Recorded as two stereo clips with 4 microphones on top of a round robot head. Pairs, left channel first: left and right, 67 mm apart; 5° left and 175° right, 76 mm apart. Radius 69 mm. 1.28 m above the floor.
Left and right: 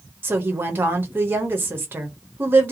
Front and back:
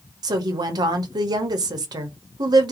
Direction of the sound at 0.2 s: 145° right.